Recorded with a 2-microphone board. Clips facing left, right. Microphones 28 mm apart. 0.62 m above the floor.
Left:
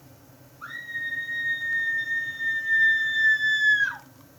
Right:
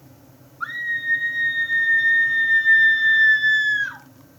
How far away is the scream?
About 3 m.